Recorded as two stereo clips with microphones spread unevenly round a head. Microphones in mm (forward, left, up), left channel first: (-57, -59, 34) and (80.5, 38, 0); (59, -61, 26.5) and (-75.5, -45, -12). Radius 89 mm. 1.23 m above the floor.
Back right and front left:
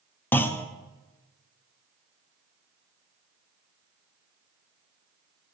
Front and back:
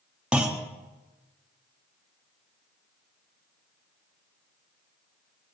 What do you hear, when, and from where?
0.3 s a clunk: 125° left, 0.5 m